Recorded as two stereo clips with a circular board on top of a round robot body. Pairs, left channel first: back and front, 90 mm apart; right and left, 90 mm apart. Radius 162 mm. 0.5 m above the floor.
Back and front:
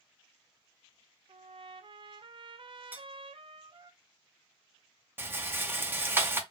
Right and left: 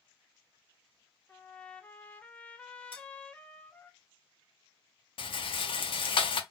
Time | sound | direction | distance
1.3 | a trumpet | 15° right | 0.6 m
2.9 | cutlery clinking | 70° right | 1.2 m
5.2 | a rattle | 65° right | 0.7 m